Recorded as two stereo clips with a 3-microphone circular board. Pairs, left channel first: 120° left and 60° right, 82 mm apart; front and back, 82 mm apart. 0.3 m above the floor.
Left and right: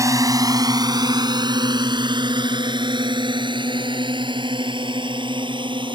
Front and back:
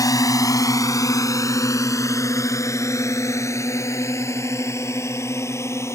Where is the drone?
25° right; by 6.0 s 55° right.